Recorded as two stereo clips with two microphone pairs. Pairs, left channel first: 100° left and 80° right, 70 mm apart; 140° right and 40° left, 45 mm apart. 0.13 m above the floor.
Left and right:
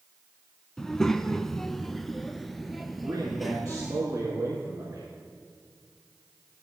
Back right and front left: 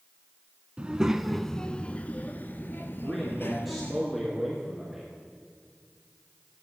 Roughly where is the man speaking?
Ahead right.